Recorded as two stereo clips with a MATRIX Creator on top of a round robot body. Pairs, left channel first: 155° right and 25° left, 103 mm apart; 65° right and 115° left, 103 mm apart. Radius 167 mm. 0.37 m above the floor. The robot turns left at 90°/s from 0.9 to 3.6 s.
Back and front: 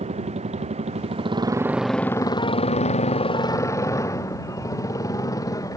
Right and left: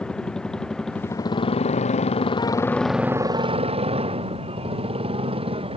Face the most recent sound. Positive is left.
turn(degrees=145)